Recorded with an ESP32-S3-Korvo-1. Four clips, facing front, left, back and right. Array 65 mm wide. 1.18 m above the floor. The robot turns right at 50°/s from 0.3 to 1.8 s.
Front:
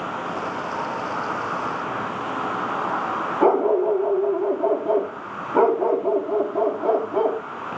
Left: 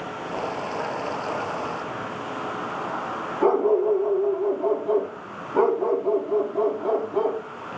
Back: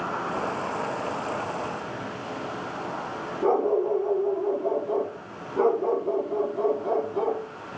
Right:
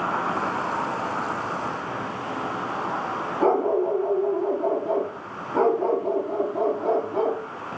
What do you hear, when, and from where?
0.0 s an insect: 85° right, 4 m; by 7.8 s 10° right, 4 m
3.4 s a dog barking: 5° right, 9 m